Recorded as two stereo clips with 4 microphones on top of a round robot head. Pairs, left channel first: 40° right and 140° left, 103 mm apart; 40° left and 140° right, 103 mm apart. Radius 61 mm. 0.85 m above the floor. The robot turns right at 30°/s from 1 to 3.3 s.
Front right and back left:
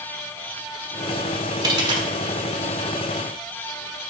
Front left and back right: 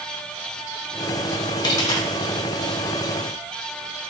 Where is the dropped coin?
90° left, 0.6 m; by 2.1 s 105° left, 0.6 m.